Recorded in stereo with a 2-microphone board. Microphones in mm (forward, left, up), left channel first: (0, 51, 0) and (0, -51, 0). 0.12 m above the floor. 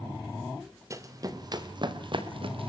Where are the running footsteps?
30° right (ahead or behind), 2.5 m; by 2.7 s 60° right (ahead or behind), 3 m.